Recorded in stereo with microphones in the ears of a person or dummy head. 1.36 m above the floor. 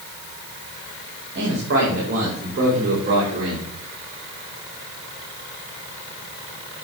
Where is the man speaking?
65° right (ahead or behind), 3 m; by 3.7 s 45° right (ahead or behind), 4.5 m.